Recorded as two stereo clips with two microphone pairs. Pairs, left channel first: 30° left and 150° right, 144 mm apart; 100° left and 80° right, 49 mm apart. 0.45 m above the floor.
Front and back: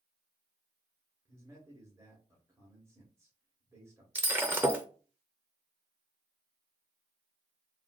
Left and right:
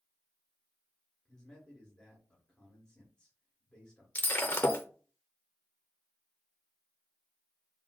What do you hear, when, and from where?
1.2 s a man speaking: 155° left, 1.1 m
4.2 s breaking glass: 130° left, 0.6 m